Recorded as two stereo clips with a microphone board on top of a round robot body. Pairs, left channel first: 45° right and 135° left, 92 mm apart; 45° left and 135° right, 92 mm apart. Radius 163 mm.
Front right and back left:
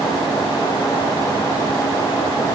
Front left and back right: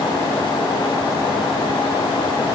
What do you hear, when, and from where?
Only background noise.